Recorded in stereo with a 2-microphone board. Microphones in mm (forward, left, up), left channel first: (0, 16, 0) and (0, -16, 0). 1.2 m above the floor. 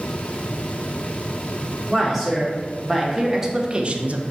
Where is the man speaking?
5° left (ahead or behind), 1.8 m; by 4.2 s 60° right (ahead or behind), 0.5 m.